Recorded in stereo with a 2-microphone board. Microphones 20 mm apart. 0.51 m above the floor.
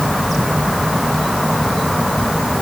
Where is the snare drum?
No snare drum in this recording.